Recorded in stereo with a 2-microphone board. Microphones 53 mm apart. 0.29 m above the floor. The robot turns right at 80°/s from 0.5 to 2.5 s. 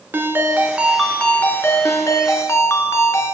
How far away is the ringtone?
About 2 m.